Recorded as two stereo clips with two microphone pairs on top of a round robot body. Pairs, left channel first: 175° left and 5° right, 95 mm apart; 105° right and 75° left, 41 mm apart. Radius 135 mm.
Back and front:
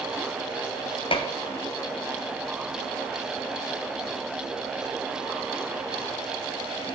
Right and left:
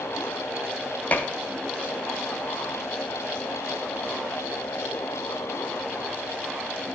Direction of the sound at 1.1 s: 155° right.